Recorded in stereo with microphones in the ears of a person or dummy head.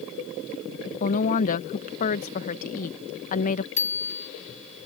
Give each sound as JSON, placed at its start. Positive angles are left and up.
{"t": 1.0, "sound": "a woman speaking", "side_deg": 45}
{"t": 3.8, "sound": "a bicycle bell", "side_deg": 40}